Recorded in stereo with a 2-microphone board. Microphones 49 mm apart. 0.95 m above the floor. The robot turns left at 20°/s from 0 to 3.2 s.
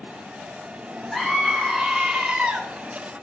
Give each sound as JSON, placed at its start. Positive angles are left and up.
{"t": 1.1, "sound": "a scream", "azimuth_deg": 5, "distance_m": 3.0}